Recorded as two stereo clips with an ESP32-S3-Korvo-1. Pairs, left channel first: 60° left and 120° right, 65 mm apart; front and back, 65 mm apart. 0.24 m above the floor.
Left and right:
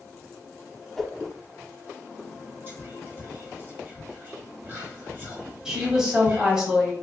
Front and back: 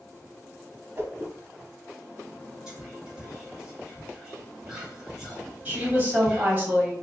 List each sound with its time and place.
1.0 s a whoosh: 145° left, 0.7 m
2.7 s whispering: 105° right, 1.9 m
5.7 s a woman speaking: 175° left, 1.4 m